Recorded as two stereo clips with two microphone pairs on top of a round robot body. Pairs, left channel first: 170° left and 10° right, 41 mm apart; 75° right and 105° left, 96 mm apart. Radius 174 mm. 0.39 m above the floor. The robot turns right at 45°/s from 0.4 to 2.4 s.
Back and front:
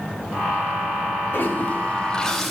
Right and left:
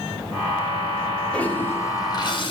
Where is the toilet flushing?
155° right, 3.5 m; by 2.5 s 105° right, 3.5 m.